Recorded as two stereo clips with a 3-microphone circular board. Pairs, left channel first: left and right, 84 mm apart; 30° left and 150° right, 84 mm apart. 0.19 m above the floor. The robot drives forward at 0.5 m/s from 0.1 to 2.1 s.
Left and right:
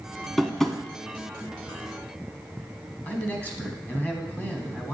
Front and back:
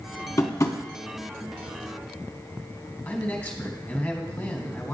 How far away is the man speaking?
About 1.4 m.